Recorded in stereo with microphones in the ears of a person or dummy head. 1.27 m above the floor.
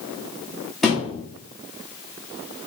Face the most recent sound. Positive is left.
turn(degrees=-5)  # may be behind; listen again after turning